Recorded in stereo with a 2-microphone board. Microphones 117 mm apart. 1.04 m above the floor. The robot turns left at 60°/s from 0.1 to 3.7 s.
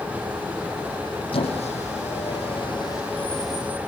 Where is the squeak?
50° left (ahead or behind), 6 m; by 3.8 s 15° right (ahead or behind), 6 m.